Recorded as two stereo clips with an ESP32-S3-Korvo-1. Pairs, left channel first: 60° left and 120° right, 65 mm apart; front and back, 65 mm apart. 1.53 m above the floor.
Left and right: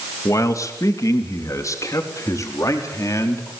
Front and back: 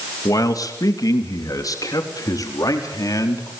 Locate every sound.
0.2 s a man speaking: 25° left, 2.5 m